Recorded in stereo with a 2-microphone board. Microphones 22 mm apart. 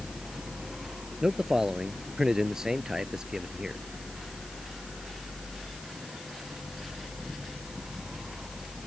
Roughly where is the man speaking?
Right.